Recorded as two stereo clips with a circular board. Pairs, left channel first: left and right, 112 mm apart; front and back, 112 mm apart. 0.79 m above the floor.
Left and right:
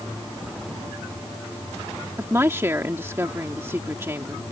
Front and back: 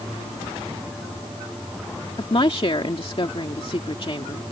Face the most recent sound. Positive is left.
turn(degrees=-25)